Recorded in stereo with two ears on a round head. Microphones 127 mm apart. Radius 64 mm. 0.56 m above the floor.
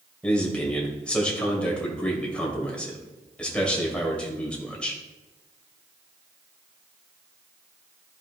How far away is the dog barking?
No dog barking in this recording.